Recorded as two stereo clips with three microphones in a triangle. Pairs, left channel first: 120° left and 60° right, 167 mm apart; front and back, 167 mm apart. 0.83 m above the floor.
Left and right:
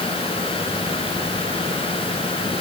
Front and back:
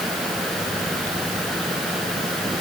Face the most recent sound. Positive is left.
No sound to turn to.